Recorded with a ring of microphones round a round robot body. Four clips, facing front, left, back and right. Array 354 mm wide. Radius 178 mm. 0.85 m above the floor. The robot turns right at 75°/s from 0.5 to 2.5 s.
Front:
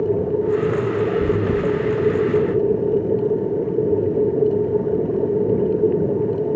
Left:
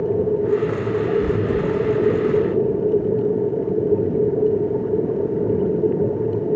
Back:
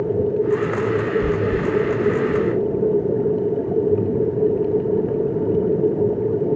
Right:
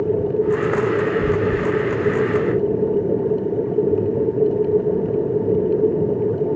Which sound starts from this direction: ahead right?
Chewing, at 1.2 s.